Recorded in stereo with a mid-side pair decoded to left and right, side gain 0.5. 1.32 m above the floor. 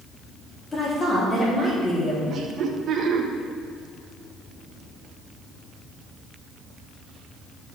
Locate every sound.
0.7 s a woman speaking: 30° left, 3.5 m; by 2.2 s 25° left, 4.5 m
2.3 s laughter: 55° right, 1.7 m